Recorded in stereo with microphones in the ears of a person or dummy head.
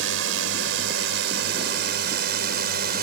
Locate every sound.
0.0 s a drone: 75° right (ahead or behind); by 3.0 s 55° right (ahead or behind)